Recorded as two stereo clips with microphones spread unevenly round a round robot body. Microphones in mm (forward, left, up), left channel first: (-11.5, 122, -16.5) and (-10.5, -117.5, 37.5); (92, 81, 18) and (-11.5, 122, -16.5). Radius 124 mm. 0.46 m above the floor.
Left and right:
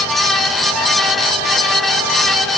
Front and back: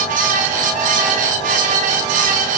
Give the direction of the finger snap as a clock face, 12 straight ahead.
I don't hear a finger snap.